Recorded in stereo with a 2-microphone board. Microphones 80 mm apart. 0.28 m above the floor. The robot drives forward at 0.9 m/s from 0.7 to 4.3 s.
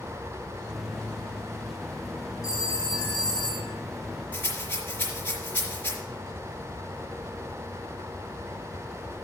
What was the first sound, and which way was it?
A phone ringing, 50° left (ahead or behind).